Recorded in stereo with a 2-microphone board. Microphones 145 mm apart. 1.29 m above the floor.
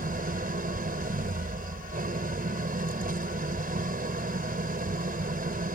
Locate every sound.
0.0 s an engine running: 85° right